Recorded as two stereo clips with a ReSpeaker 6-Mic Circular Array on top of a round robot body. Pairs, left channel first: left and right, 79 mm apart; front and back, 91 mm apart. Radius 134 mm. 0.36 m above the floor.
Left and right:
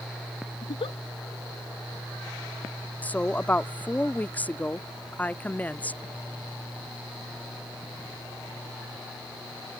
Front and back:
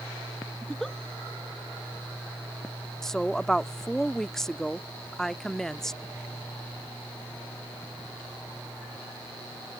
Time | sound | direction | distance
0.6 | a giggle | 85° left | ?
3.0 | a woman speaking | 75° left | ?